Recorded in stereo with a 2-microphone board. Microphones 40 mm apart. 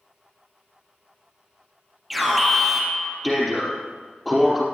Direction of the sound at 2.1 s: 5° right (ahead or behind).